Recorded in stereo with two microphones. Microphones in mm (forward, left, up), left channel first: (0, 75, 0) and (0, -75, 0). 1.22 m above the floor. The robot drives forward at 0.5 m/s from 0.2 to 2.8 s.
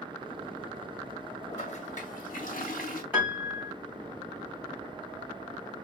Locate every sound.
1.5 s a toilet flushing: 45° left (ahead or behind), 1.1 m; by 3.0 s 65° left (ahead or behind), 0.9 m
3.1 s a piano: 10° right (ahead or behind), 3.5 m